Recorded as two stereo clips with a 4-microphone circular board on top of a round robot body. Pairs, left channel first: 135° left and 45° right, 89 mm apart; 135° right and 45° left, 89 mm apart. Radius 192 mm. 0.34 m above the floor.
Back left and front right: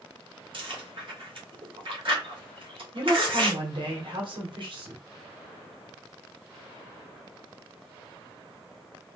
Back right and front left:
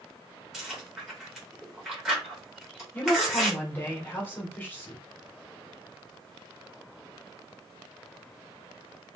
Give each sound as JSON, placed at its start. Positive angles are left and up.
{"t": 0.5, "sound": "chewing", "azimuth_deg": -40, "distance_m": 2.5}
{"t": 2.9, "sound": "a woman speaking", "azimuth_deg": -65, "distance_m": 2.0}